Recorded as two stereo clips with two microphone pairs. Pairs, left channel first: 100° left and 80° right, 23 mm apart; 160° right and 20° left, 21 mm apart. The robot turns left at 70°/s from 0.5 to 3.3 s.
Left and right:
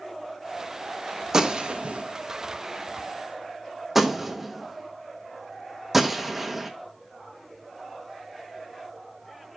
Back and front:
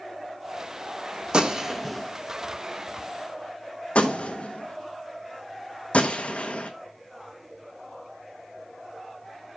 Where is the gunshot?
20° right, 1.0 m; by 6.7 s 160° right, 1.0 m.